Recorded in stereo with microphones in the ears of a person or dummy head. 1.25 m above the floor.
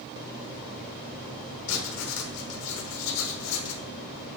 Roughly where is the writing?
Left.